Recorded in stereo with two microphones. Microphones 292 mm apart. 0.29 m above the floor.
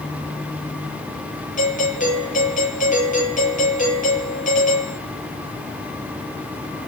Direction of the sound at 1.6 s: 25° left (ahead or behind).